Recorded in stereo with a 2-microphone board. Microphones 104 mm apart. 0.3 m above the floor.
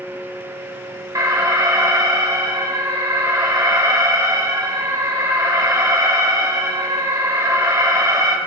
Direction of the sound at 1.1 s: 35° right (ahead or behind).